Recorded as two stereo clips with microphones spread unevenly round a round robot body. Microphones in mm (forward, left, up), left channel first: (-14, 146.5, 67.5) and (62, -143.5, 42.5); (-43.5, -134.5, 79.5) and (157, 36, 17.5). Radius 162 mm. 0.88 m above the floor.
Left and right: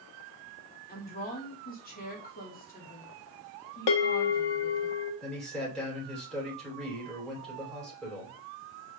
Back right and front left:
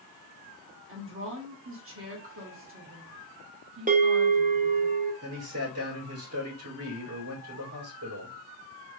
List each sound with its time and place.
0.9 s a woman speaking: 45° left, 1.7 m
3.9 s a bell: 110° left, 0.8 m
5.2 s a man speaking: 15° left, 3.5 m